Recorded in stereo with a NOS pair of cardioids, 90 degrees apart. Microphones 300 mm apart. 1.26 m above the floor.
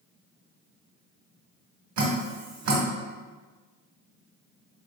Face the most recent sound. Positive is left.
turn(degrees=-65)